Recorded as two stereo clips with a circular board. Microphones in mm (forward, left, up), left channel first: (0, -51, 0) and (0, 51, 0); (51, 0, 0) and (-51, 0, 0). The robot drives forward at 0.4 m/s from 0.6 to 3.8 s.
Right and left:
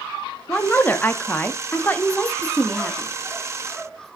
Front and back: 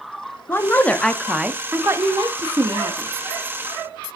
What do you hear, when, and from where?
0.5 s a woman speaking: 35° right, 0.6 m; by 3.1 s 165° right, 0.9 m